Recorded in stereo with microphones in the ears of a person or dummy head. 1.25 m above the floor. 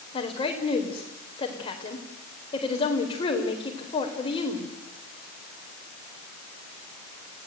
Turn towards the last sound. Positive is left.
turn(degrees=30)  # may be behind; listen again after turning